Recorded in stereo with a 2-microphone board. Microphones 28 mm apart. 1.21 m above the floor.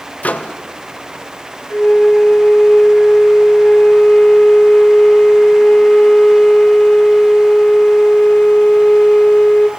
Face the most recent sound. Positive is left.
turn(degrees=70)  # may be behind; listen again after turning